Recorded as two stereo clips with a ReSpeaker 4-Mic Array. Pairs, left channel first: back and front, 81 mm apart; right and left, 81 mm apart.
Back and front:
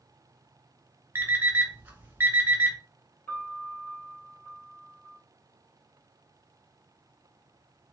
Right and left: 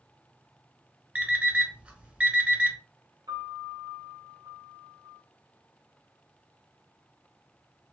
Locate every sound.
1.1 s an alarm clock: 30° left, 0.7 m
3.3 s a piano: 115° left, 1.1 m